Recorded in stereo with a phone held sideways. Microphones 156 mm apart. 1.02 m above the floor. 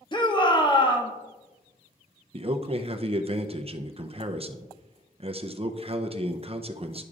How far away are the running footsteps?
No running footsteps in this recording.